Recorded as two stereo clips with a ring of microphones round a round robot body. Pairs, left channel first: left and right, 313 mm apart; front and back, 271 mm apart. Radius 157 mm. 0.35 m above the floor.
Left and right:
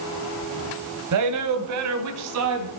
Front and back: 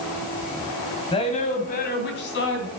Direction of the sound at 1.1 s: 70° right.